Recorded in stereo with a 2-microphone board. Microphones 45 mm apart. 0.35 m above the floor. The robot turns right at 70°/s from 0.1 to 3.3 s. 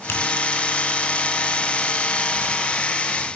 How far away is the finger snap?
About 7 m.